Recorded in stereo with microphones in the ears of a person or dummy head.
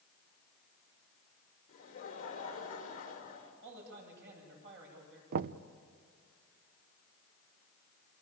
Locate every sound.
1.7 s laughter: 45° left (ahead or behind), 5 m
3.6 s a man speaking: 60° right (ahead or behind), 9 m
5.3 s knocking: 50° right (ahead or behind), 0.6 m